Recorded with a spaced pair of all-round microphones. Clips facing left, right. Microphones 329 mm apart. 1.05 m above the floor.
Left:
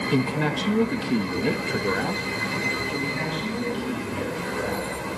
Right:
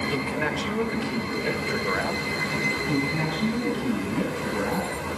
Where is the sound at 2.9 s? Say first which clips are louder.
Right 3 dB; 60° right (ahead or behind), 8 m.